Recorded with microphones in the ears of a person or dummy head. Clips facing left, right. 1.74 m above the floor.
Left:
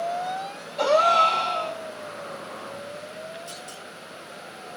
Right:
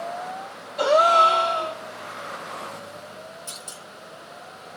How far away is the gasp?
About 3 m.